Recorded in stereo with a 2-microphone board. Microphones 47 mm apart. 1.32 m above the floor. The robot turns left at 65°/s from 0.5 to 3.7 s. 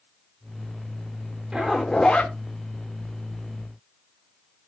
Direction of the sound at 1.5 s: 165° right.